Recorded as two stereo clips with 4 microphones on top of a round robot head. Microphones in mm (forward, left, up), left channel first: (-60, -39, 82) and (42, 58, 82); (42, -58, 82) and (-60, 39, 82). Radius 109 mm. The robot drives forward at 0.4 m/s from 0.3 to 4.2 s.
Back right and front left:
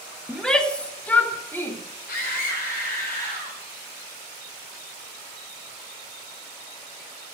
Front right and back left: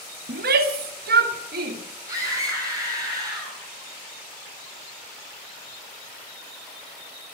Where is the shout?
135° left, 1.4 m; by 1.8 s 150° left, 1.9 m.